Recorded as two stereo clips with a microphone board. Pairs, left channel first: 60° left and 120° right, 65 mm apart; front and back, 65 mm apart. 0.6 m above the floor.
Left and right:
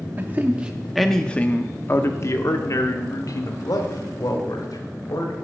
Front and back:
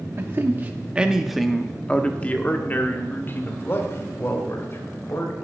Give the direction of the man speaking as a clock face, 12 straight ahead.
5 o'clock.